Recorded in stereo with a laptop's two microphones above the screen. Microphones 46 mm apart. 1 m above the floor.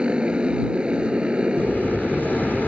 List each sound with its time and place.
0.0 s a motorcycle: 25° right (ahead or behind)
1.6 s an explosion: 40° left (ahead or behind)